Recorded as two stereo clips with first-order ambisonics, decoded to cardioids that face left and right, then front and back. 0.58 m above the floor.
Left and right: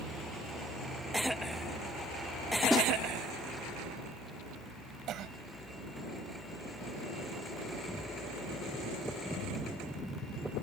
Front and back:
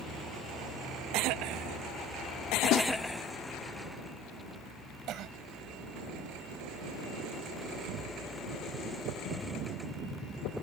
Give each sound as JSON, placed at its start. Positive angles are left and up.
{"t": 2.7, "sound": "a snare drum", "azimuth_deg": 0}
{"t": 5.1, "sound": "a cough", "azimuth_deg": -135}